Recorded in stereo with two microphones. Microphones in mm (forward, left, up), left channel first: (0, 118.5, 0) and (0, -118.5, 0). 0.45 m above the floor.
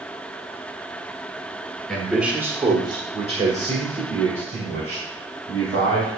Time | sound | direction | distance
1.9 | a man speaking | centre (ahead or behind) | 1.5 m